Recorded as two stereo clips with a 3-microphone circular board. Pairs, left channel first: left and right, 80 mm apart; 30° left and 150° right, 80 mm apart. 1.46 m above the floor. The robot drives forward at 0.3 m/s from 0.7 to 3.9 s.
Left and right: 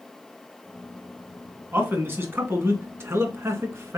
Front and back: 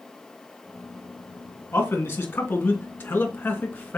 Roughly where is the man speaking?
Ahead right.